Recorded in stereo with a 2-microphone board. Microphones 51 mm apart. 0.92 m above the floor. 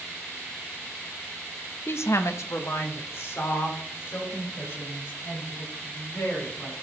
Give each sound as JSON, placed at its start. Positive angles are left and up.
{"t": 1.9, "sound": "a woman speaking", "side_deg": 45, "distance_m": 0.5}